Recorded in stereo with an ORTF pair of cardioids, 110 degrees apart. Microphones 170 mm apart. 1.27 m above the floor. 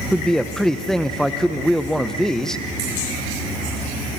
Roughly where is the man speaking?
Ahead.